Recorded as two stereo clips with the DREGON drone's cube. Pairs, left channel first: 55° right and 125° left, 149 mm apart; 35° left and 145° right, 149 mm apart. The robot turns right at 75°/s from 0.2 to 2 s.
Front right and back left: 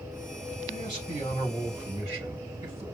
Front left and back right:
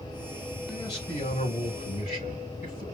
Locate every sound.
0.7 s a man speaking: 45° right, 4.5 m; by 2.9 s 55° left, 4.5 m